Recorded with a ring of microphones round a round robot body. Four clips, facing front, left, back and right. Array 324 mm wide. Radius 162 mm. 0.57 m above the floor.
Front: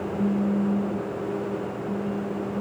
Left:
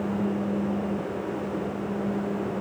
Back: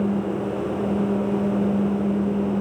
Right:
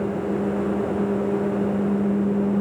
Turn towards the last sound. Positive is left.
No sound to turn to.